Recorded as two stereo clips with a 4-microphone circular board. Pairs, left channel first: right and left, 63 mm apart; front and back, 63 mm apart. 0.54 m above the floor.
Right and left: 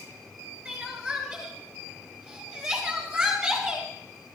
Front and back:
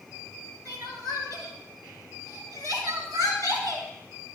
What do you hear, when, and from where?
0.7 s crying: 170° left, 7.5 m